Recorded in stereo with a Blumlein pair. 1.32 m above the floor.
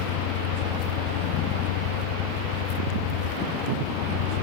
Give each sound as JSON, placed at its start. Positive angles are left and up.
{"t": 0.0, "sound": "a vehicle", "azimuth_deg": 40}